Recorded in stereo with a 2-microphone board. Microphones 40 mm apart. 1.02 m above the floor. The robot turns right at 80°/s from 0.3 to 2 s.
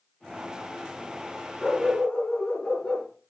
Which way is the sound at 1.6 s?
15° right.